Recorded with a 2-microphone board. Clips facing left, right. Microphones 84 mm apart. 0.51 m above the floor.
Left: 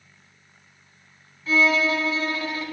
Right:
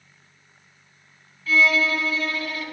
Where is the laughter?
No laughter in this recording.